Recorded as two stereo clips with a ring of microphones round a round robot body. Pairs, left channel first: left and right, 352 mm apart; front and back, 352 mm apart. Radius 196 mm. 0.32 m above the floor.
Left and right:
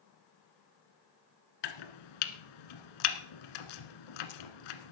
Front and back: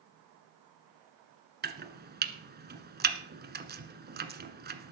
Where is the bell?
I don't hear a bell.